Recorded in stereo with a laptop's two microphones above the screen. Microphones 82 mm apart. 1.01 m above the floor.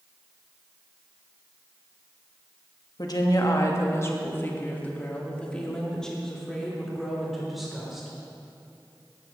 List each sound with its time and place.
3.0 s a woman speaking: 55° left (ahead or behind), 1.5 m; by 8.1 s 5° right (ahead or behind), 3.5 m